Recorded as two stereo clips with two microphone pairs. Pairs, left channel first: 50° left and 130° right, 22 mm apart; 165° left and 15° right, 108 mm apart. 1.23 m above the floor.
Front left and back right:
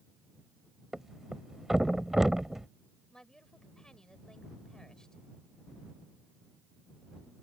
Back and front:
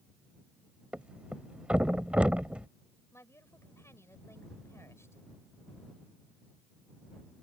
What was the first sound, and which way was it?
A thud, 80° right.